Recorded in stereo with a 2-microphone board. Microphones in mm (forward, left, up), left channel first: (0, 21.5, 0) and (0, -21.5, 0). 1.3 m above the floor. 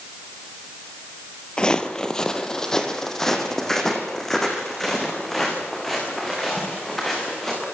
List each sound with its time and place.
1.6 s footsteps: 20° left (ahead or behind), 1.7 m; by 7.6 s 5° left (ahead or behind), 10 m